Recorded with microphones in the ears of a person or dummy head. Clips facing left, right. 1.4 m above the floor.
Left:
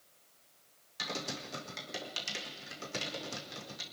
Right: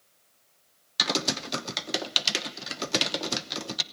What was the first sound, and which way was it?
Typing on a keyboard, 85° right.